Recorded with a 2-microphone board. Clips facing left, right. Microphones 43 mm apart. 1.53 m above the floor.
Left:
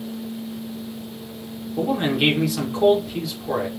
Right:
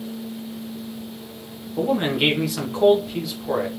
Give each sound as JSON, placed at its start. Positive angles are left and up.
{"t": 1.8, "sound": "a man speaking", "side_deg": -10, "distance_m": 1.3}